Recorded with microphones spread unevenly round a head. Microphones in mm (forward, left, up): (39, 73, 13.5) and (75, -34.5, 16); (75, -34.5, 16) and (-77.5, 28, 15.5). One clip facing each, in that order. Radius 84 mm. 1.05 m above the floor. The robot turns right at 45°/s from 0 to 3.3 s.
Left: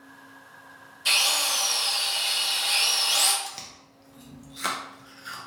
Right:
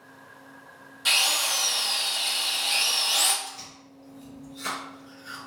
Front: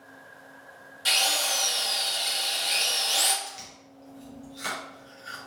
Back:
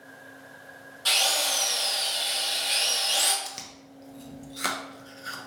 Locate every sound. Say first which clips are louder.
1.1 s a drill: even, back 1 dB; 90° right, 1.5 m; by 3.3 s 10° left, 1.5 m
3.4 s chewing: left 1 dB, back 1 dB; 140° left, 0.5 m